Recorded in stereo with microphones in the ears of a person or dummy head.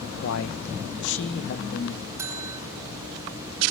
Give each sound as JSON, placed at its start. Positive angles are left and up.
{"t": 0.2, "sound": "a man speaking", "side_deg": 75, "distance_m": 2.0}
{"t": 2.2, "sound": "a bell", "side_deg": -15, "distance_m": 2.5}